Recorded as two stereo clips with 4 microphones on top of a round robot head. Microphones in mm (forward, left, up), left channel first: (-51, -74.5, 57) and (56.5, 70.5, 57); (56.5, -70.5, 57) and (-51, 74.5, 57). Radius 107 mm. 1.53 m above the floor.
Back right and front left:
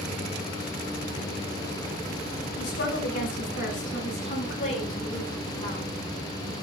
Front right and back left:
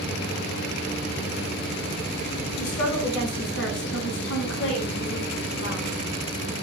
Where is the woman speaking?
85° right, 4.5 m; by 6.5 s 65° right, 6 m.